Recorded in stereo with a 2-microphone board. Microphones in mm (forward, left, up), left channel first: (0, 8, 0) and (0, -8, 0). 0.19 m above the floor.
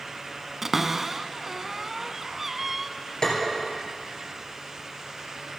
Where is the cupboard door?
15° right (ahead or behind), 0.6 m.